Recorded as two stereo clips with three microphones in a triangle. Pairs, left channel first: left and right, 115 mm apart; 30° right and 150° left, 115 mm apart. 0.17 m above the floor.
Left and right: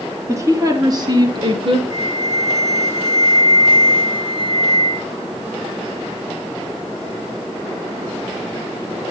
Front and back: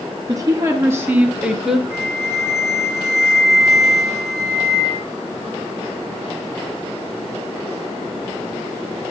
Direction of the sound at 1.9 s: 100° right.